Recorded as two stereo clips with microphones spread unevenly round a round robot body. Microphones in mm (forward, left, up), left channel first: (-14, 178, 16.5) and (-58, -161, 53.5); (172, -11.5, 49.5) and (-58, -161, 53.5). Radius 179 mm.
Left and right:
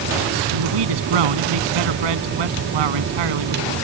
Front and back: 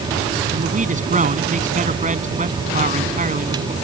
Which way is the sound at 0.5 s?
85° right.